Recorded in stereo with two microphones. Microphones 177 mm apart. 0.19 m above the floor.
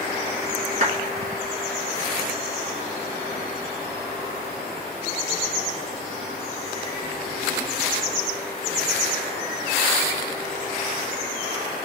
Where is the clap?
45° right (ahead or behind), 2 m.